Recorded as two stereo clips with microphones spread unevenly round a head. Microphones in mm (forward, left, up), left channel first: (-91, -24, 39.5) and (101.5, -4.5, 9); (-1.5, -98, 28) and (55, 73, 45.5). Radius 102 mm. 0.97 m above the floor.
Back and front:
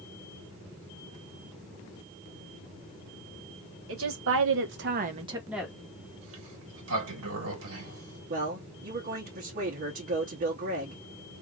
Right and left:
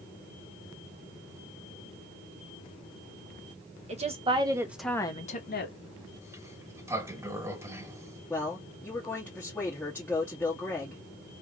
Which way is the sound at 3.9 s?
20° left.